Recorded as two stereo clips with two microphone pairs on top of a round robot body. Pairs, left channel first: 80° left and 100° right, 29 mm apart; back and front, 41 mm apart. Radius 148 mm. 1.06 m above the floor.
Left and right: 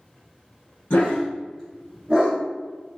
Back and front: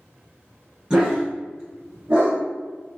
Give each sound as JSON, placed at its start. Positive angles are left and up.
{"t": 0.9, "sound": "a dog barking", "azimuth_deg": 65, "distance_m": 0.8}